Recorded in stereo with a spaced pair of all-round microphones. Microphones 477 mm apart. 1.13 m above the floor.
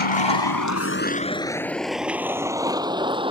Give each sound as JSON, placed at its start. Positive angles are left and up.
{"t": 0.0, "sound": "a vehicle", "side_deg": 80}